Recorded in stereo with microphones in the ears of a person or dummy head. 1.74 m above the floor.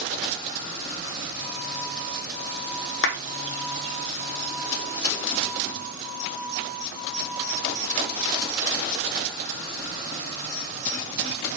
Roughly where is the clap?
Left.